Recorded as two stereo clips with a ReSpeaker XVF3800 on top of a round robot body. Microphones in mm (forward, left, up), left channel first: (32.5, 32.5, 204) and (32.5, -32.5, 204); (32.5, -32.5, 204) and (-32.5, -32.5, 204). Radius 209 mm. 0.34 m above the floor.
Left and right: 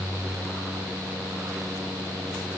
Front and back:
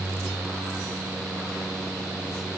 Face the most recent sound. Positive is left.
No sound to turn to.